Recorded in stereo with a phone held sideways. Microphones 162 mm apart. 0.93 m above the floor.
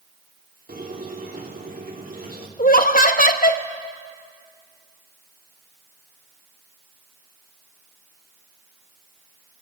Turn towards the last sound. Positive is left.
turn(degrees=60)  # may be behind; listen again after turning